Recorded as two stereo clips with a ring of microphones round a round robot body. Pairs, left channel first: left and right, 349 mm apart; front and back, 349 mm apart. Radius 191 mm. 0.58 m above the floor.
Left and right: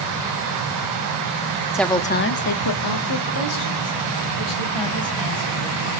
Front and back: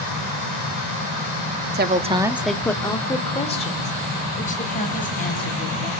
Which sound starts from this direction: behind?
A woman speaking, at 1.7 s.